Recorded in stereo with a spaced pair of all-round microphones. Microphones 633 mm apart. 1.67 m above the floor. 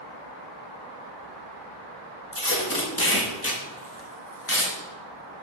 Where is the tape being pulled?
20° left (ahead or behind), 1.1 m.